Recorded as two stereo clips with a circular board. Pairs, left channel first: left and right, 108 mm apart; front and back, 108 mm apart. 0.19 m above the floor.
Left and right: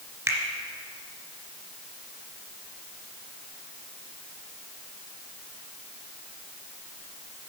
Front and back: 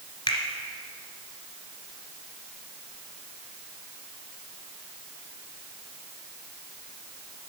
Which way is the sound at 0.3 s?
40° right.